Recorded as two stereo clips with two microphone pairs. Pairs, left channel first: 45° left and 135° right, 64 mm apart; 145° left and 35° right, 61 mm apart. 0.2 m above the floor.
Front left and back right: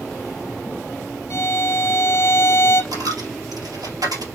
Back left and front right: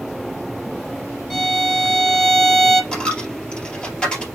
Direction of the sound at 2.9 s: 140° right.